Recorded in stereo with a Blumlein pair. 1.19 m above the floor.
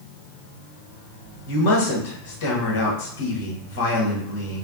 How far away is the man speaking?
About 1.4 m.